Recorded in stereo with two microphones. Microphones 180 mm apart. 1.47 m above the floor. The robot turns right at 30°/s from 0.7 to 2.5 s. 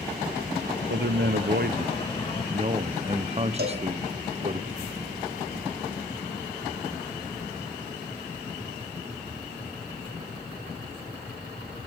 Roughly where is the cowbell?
Right.